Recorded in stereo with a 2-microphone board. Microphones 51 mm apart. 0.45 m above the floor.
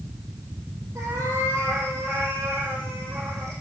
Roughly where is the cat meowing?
Right.